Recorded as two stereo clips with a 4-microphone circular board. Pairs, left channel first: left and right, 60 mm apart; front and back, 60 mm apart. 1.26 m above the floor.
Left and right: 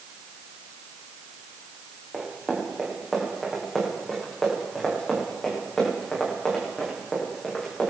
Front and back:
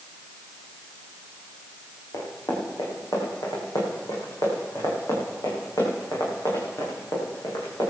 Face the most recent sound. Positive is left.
turn(degrees=15)